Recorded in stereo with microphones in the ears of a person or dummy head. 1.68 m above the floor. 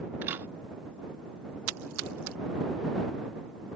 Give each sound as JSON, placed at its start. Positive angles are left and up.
{"t": 0.2, "sound": "a camera shutter", "side_deg": -10}
{"t": 1.7, "sound": "a splash", "side_deg": -75}